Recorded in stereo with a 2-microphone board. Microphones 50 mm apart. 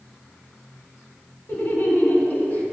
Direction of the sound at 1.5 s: 50° left (ahead or behind).